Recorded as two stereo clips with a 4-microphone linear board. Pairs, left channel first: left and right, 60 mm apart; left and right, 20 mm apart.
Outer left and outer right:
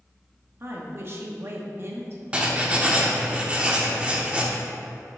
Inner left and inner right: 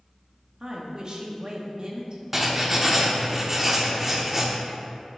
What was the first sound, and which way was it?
A woman speaking, 45° right (ahead or behind).